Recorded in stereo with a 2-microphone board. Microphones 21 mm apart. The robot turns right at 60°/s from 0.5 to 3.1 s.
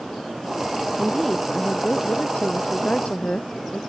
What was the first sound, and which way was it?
A woman speaking, straight ahead.